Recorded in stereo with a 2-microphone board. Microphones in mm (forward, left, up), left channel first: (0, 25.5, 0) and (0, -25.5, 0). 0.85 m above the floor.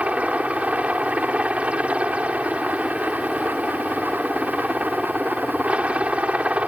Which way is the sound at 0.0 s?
25° right (ahead or behind).